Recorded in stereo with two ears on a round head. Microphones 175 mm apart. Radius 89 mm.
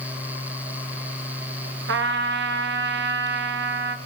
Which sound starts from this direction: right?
A trumpet, at 1.9 s.